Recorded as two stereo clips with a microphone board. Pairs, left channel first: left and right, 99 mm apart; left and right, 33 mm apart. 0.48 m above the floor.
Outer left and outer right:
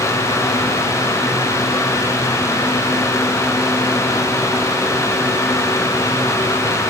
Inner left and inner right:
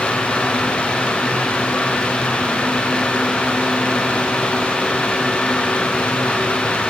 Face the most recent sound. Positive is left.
No sound to turn to.